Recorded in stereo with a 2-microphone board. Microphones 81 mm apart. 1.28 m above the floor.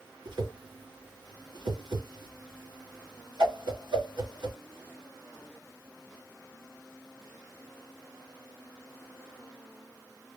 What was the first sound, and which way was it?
A whoosh, 65° right (ahead or behind).